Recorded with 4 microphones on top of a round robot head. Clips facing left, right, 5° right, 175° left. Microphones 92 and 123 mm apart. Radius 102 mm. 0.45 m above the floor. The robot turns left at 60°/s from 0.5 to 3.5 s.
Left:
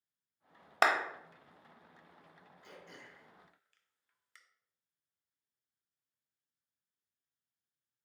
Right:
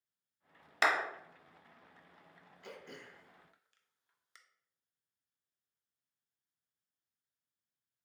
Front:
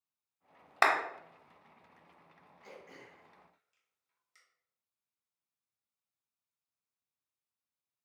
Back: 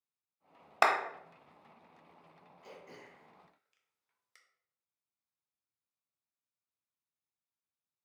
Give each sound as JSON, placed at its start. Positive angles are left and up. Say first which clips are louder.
{"t": 0.8, "sound": "a clap", "louder": "left 2 dB, even", "azimuth_deg": 110, "distance_m": 0.7}
{"t": 2.6, "sound": "throat clearing", "louder": "right 4 dB, even", "azimuth_deg": -110, "distance_m": 0.5}